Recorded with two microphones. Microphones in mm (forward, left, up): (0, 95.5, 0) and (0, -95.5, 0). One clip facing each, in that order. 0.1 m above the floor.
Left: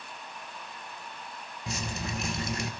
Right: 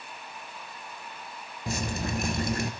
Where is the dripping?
55° right (ahead or behind), 0.7 m.